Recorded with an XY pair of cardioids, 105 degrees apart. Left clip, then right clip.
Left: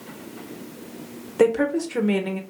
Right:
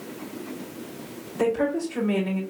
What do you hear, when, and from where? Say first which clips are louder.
1.4 s a woman speaking: left 4 dB; 55° left, 1.2 m